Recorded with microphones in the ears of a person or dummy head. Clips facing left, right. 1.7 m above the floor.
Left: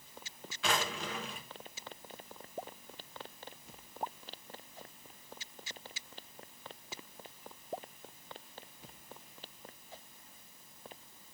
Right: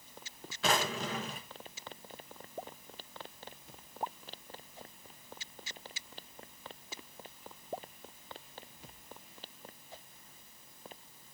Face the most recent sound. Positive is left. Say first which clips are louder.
# right 3 dB
turn(degrees=-35)  # may be behind; listen again after turning